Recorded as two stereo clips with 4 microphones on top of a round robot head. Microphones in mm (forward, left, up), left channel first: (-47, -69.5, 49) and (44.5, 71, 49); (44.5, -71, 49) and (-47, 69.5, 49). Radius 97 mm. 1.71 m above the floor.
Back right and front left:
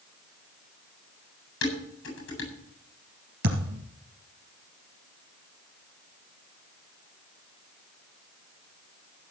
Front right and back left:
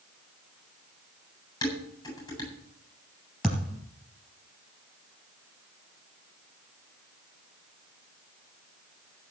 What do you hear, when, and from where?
1.6 s dishes clattering: 125° right, 8.5 m
3.4 s a thud: 35° left, 3 m